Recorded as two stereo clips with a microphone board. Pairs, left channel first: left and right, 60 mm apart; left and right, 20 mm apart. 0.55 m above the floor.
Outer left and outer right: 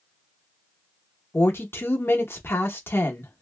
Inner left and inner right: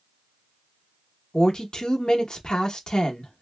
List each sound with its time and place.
1.3 s a woman speaking: 40° left (ahead or behind), 0.8 m